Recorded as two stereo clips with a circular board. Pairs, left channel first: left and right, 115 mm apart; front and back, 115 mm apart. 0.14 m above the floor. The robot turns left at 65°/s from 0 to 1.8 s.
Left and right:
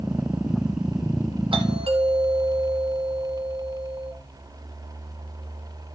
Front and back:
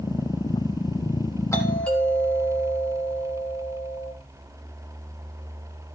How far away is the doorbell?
About 3.5 m.